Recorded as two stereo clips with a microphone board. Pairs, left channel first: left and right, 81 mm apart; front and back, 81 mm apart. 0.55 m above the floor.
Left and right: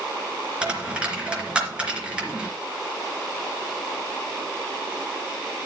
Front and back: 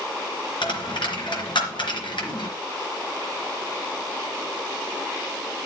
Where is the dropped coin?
15° right, 3 m.